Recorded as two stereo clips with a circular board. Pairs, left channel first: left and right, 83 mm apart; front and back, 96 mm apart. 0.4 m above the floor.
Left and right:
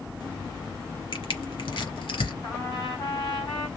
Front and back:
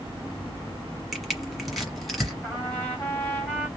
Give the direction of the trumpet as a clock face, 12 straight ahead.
10 o'clock.